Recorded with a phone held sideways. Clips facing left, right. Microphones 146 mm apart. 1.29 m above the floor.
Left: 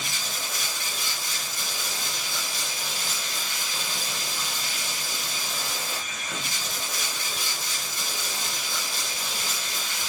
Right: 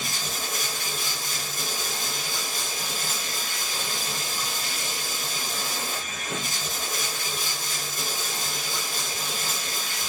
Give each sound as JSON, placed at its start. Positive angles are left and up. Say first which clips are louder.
{"t": 0.0, "sound": "running water", "louder": "right 2 dB", "side_deg": -45, "distance_m": 1.1}